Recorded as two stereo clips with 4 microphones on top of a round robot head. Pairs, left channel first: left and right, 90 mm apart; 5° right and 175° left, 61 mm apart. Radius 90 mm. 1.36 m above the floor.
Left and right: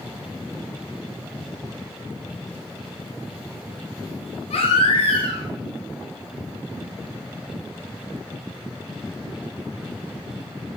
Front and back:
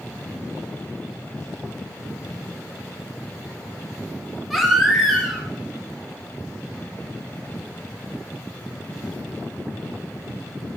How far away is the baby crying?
About 2.0 m.